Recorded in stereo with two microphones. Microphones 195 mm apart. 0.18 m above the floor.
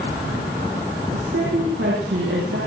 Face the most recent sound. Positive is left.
turn(degrees=-80)